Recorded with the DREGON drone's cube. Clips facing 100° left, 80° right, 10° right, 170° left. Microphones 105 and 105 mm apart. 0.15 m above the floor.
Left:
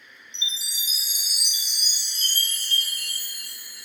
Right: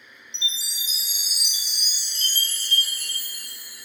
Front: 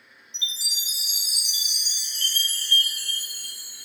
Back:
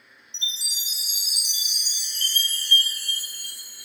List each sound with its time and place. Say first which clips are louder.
0.3 s a chime: right 1 dB, even; 45° left, 1.8 m